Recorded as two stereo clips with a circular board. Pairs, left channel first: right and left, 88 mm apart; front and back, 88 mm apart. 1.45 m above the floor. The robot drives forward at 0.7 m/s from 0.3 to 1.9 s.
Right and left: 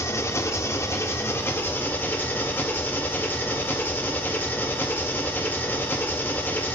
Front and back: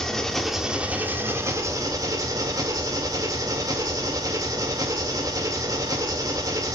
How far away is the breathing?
No breathing in this recording.